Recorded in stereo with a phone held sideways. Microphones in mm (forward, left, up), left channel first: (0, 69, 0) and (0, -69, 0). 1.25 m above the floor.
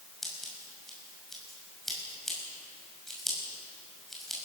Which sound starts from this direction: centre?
Scissors, at 0.2 s.